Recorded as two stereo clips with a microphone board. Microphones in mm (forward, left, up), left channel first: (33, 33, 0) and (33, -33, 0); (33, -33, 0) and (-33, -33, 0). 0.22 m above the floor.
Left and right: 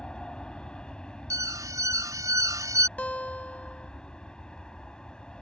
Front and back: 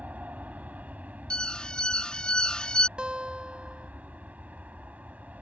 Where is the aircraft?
150° left.